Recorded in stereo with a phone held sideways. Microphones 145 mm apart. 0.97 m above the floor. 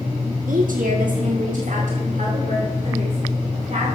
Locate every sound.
0.5 s a woman speaking: 80° right, 1.4 m; by 3.9 s 55° right (ahead or behind), 4 m